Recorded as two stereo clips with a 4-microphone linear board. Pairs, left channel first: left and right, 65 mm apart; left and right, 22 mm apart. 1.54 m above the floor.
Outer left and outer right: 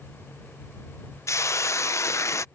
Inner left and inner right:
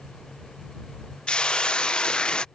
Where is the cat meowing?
No cat meowing in this recording.